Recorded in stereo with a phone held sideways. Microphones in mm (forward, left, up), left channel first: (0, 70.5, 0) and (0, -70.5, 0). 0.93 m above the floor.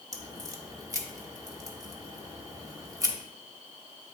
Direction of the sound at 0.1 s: 25° right (ahead or behind).